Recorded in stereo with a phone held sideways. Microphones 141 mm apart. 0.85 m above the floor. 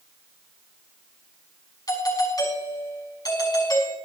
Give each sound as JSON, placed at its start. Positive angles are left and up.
{"t": 1.9, "sound": "a doorbell", "side_deg": 30, "distance_m": 5.0}